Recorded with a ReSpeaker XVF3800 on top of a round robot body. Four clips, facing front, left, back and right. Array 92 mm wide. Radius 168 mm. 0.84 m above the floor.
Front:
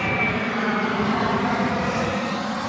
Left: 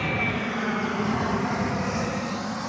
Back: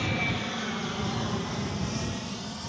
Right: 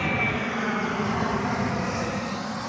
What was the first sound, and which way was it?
An aircraft, 10° right.